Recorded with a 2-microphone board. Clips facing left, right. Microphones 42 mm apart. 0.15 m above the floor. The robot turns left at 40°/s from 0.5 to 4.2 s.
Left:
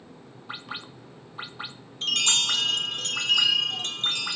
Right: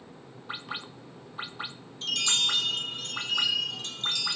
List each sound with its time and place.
2.0 s a chime: 130° left, 0.7 m; by 4.4 s 40° left, 0.7 m